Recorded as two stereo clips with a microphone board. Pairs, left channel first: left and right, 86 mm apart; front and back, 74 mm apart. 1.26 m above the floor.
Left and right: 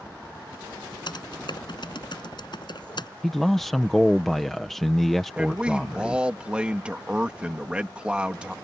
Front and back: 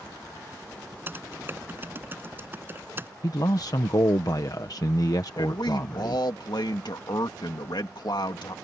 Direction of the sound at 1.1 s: 120° left.